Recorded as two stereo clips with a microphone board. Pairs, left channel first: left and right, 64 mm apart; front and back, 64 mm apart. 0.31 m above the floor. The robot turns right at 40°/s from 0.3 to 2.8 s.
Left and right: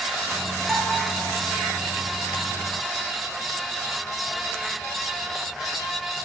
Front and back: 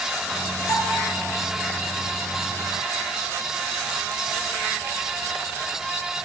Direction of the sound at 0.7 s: Straight ahead.